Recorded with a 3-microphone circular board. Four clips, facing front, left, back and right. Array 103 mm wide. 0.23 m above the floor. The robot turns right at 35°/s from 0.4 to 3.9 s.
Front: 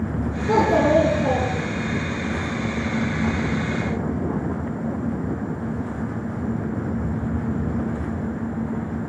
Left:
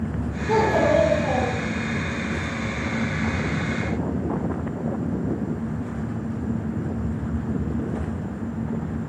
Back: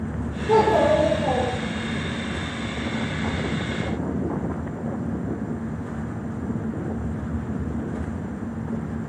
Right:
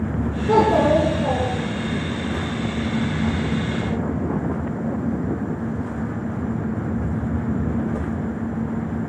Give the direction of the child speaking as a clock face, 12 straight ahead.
2 o'clock.